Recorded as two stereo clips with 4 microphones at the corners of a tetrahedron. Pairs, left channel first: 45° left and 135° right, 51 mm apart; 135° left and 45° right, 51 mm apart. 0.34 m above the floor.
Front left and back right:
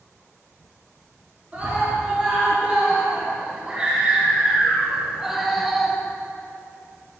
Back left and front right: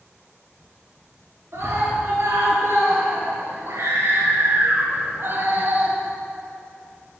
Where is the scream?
75° right, 3.5 m; by 6.0 s 40° right, 1.2 m.